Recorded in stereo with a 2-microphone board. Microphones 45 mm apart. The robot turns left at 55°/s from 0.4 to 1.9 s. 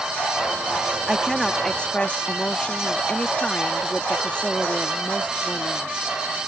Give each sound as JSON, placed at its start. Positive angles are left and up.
{"t": 1.1, "sound": "a woman speaking", "azimuth_deg": -165}